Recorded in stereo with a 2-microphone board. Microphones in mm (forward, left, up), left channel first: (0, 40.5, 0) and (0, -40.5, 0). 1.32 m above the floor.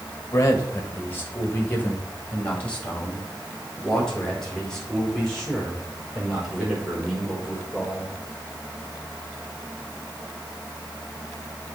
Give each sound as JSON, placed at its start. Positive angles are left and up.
{"t": 0.3, "sound": "a man speaking", "side_deg": 35, "distance_m": 1.6}